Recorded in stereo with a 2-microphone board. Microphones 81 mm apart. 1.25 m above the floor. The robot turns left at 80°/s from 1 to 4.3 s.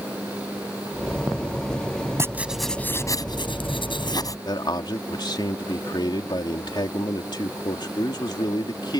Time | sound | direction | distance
2.2 | writing | 145° right | ?
4.5 | a man speaking | 55° left (ahead or behind) | ?